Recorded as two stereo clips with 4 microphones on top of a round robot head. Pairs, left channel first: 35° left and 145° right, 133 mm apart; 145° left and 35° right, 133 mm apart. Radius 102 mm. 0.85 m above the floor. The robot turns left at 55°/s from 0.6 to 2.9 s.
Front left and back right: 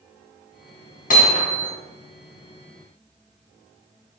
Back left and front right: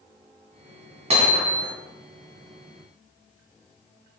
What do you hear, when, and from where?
1.1 s hammering: 10° left, 3 m; by 1.7 s 25° right, 3 m